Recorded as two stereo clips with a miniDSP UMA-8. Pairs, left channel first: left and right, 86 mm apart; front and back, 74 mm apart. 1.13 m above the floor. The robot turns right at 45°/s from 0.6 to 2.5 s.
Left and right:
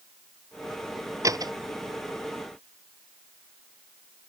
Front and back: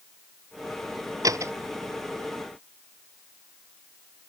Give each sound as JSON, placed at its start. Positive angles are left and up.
{"t": 1.2, "sound": "a door slam", "azimuth_deg": -140}